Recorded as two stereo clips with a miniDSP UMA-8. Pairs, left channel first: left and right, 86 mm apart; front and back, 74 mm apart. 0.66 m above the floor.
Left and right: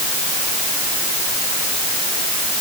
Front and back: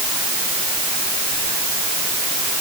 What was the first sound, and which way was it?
Only background noise.